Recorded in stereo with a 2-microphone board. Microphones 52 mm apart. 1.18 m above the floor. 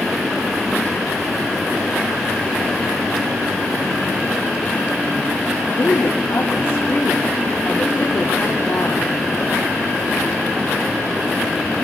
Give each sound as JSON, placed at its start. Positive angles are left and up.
{"t": 5.6, "sound": "a woman speaking", "side_deg": 65, "distance_m": 3.5}